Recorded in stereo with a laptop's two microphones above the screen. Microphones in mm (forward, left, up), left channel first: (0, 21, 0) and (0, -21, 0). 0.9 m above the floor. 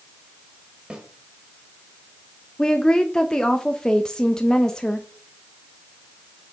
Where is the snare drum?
20° right (ahead or behind), 1.4 m.